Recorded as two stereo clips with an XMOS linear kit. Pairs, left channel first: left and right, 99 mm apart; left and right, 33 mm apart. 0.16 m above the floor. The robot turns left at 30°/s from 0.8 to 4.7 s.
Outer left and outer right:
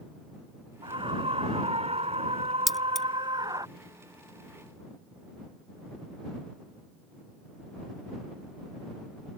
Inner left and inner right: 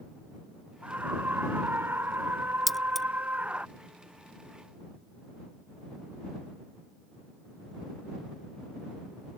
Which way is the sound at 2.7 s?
Centre (ahead or behind).